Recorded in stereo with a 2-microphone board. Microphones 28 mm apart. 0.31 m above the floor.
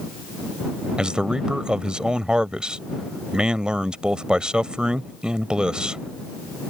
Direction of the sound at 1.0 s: 35° right (ahead or behind).